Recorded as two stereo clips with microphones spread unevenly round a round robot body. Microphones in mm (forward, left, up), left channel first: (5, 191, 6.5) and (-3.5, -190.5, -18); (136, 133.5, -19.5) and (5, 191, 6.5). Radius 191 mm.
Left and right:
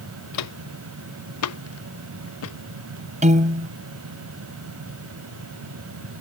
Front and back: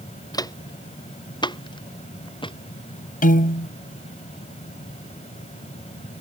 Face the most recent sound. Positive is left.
turn(degrees=-20)